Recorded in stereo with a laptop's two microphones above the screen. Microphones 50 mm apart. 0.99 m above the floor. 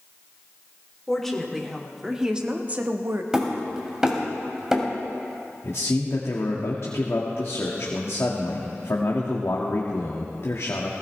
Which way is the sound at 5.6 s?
60° left (ahead or behind).